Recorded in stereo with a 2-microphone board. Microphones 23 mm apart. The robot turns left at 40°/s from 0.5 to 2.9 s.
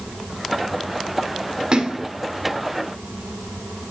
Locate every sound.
1.7 s a splash: 35° right (ahead or behind), 1.4 m